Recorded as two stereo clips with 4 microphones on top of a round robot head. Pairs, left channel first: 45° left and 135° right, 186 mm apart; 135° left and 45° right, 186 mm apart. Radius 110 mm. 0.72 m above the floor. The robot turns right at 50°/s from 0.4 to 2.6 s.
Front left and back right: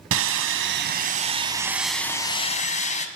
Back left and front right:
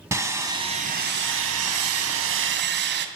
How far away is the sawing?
About 1.5 m.